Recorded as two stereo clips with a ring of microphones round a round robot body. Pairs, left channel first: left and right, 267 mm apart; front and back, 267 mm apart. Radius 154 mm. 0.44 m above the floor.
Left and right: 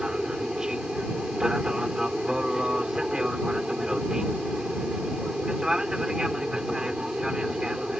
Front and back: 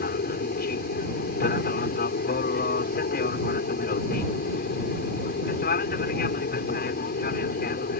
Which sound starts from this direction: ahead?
An aircraft, at 0.0 s.